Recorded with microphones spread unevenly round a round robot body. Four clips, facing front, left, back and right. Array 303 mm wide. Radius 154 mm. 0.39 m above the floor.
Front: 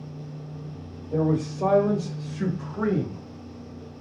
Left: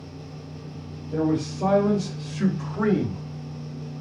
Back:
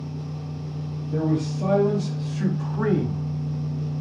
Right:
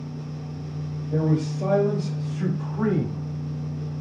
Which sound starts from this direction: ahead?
A man speaking, at 1.1 s.